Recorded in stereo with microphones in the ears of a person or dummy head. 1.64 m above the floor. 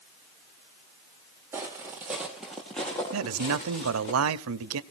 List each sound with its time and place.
1.5 s footsteps: 10° right (ahead or behind), 1.9 m; by 4.1 s 20° left (ahead or behind), 1.7 m
3.1 s a man speaking: 80° right, 0.9 m